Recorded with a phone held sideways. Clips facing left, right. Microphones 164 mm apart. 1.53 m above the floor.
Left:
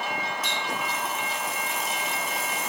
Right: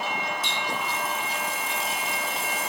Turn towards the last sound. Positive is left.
turn(degrees=-30)  # may be behind; listen again after turning